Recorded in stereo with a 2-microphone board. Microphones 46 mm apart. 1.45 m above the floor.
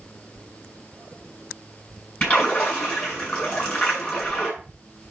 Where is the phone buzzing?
I don't hear a phone buzzing.